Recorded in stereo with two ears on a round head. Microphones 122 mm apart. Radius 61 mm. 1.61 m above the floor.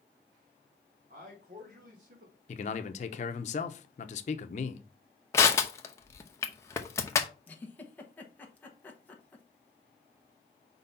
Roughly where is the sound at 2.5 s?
Left.